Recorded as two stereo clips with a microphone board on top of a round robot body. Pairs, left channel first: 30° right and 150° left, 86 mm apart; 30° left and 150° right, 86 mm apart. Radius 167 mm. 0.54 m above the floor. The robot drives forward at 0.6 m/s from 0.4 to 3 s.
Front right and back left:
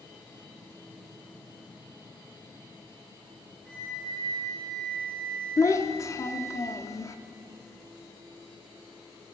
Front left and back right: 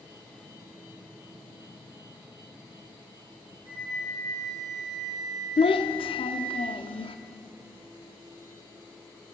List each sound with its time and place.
3.6 s a flute: 110° right, 4.5 m
5.6 s a child speaking: 25° left, 0.7 m